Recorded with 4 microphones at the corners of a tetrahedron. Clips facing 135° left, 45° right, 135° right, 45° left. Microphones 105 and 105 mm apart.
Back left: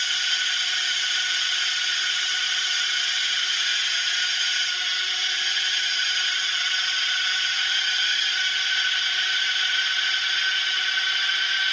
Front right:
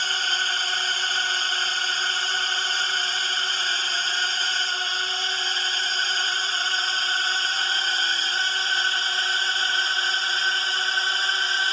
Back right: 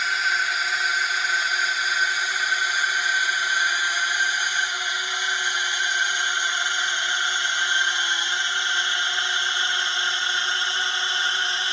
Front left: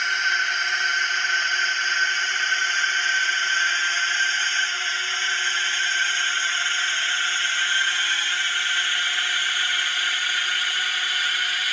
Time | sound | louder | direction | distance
0.0 | a drone | front right 4 dB, even | 50° right | ?